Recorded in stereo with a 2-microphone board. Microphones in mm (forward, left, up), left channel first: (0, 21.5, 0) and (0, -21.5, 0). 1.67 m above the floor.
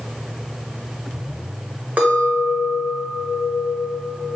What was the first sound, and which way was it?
A clink, 40° right (ahead or behind).